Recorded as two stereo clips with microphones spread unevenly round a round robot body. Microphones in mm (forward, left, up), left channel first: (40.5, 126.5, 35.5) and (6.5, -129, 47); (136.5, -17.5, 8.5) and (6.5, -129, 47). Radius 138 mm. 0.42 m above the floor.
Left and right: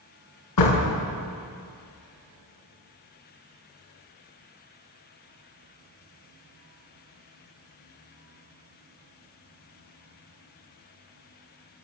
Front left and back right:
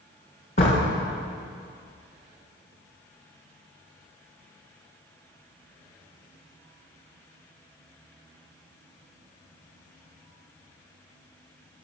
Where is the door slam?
100° left, 5 m.